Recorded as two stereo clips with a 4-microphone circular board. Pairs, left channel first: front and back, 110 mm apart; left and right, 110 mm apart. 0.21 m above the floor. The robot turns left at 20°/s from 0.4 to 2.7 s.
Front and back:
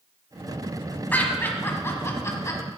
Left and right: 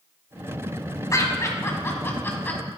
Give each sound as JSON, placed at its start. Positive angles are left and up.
{"t": 1.1, "sound": "laughter", "azimuth_deg": 60, "distance_m": 1.3}